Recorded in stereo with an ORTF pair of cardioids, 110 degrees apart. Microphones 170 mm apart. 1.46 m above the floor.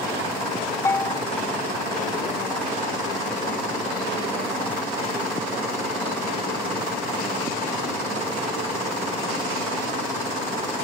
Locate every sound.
0.8 s a bell: 15° left, 0.6 m